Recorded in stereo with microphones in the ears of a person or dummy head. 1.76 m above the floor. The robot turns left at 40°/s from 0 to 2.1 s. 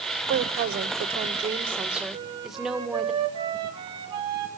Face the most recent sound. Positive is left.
turn(degrees=-35)  # may be behind; listen again after turning